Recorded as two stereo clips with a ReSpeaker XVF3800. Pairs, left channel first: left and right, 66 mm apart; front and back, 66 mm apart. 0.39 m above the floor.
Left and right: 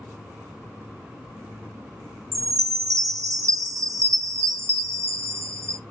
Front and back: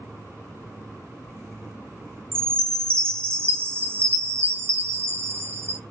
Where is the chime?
125° right, 0.5 m.